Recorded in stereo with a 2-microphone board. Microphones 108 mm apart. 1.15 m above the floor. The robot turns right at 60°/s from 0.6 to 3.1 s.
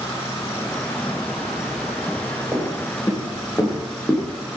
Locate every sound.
0.0 s an insect: 25° left, 6 m; by 4.6 s 175° left, 6 m
2.5 s footsteps: 10° right (ahead or behind), 9.5 m; by 4.3 s 15° left (ahead or behind), 7.5 m